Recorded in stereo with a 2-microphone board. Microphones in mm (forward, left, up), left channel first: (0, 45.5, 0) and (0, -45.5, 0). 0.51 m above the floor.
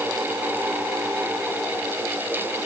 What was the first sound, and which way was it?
Only background noise.